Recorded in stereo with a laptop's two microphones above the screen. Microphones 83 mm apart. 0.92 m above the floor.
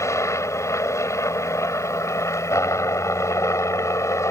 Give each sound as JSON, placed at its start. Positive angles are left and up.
{"t": 0.0, "sound": "a helicopter", "side_deg": 35}